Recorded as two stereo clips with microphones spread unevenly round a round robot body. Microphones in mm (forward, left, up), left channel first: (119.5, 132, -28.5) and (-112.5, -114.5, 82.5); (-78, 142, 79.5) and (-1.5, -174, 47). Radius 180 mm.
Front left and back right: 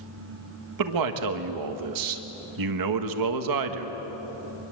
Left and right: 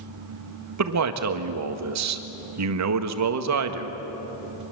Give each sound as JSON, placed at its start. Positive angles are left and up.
{"t": 0.8, "sound": "a man speaking", "azimuth_deg": -95, "distance_m": 1.7}